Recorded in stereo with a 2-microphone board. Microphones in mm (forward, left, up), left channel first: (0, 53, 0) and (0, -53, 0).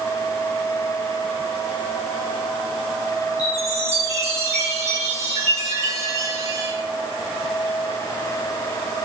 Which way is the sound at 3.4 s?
85° right.